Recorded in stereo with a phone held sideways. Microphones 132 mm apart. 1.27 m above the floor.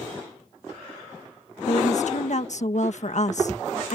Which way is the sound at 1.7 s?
60° left (ahead or behind).